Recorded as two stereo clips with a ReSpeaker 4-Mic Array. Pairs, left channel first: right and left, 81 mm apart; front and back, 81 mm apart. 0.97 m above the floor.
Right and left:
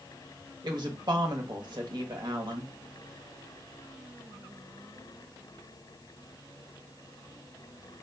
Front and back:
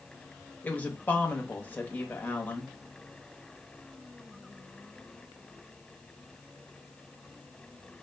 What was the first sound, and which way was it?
A woman speaking, 70° left.